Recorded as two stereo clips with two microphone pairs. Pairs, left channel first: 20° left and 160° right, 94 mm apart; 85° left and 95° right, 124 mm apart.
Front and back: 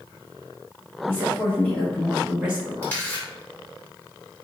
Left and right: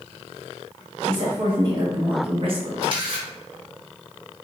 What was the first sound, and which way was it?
A woman speaking, 40° right.